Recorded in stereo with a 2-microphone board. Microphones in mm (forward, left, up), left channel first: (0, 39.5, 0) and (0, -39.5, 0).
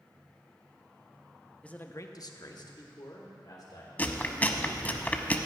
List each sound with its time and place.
1.6 s a man speaking: 15° left (ahead or behind), 0.7 m; by 3.9 s 55° left (ahead or behind), 2.5 m
4.0 s chewing: 25° left (ahead or behind), 0.7 m